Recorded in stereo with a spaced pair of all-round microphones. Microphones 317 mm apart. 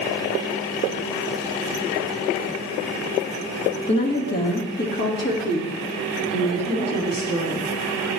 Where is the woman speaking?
35° left (ahead or behind), 2.5 m; by 7.7 s 30° left (ahead or behind), 4.5 m.